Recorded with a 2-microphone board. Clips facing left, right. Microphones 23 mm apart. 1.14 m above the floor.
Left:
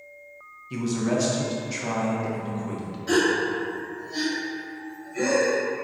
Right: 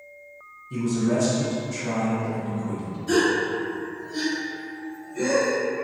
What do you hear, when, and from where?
0.7 s a man speaking: 40° left (ahead or behind), 0.6 m
3.1 s a gasp: 40° left (ahead or behind), 0.8 m